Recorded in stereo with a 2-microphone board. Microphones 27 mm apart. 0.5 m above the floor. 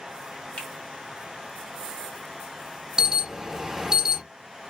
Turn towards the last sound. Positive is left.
turn(degrees=-20)  # may be behind; listen again after turning